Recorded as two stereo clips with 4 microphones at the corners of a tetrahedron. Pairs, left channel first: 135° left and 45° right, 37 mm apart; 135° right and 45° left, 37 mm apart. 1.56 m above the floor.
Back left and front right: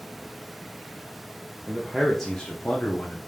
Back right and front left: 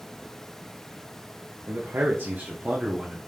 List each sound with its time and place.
1.7 s a man speaking: 30° left, 1.0 m; by 3.2 s 125° left, 1.2 m